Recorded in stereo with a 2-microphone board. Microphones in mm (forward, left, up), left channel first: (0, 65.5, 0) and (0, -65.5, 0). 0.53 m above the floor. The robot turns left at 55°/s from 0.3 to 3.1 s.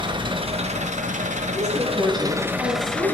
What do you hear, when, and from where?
0.0 s an engine running: 40° right, 1.9 m; by 3.1 s 165° left, 1.9 m
1.6 s a woman speaking: 35° left, 5.5 m; by 3.1 s 50° right, 5.5 m